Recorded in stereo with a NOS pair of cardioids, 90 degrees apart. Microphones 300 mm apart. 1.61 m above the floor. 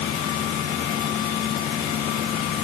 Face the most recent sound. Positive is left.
No sound to turn to.